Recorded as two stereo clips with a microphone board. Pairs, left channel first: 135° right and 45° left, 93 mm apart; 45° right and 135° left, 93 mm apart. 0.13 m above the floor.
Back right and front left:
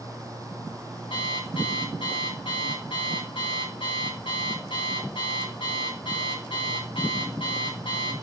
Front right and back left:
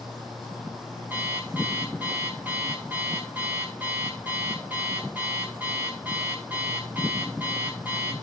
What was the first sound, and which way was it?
An alarm clock, 155° right.